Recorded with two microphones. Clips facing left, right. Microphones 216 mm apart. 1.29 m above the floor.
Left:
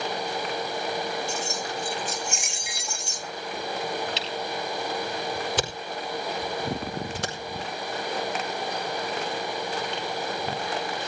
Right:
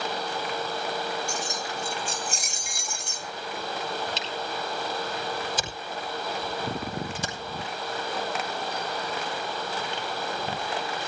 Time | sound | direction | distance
1.3 | keys jangling | 15° right (ahead or behind) | 1.6 m
4.2 | a camera shutter | 60° left (ahead or behind) | 4 m